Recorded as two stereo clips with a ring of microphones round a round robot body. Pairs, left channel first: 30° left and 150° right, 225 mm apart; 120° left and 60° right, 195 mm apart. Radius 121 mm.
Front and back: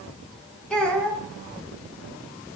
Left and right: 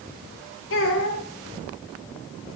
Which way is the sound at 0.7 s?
115° left.